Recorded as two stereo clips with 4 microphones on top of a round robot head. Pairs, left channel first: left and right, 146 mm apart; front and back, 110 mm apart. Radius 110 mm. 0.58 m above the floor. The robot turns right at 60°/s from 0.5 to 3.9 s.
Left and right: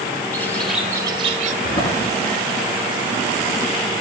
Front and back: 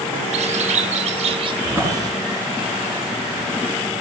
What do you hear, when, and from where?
0.3 s a bird: 170° left, 0.9 m; by 1.5 s 130° right, 0.9 m
1.6 s a drawer: 105° left, 4 m; by 2.1 s 130° left, 4 m